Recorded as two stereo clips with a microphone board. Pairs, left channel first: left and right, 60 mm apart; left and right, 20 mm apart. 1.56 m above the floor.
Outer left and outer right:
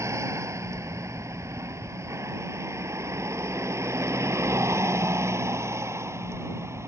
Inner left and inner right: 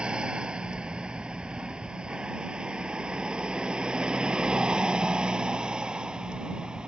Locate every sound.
0.0 s a vehicle: 50° right (ahead or behind); by 6.9 s 45° right (ahead or behind)